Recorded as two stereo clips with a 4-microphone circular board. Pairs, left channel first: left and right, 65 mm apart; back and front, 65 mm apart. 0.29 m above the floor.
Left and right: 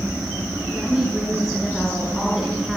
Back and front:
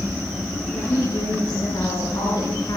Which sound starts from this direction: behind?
A woman speaking, at 0.7 s.